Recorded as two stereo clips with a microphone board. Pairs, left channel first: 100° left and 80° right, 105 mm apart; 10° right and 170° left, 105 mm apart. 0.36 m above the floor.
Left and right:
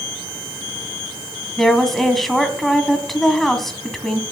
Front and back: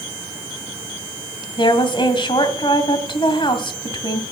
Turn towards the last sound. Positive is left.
turn(degrees=15)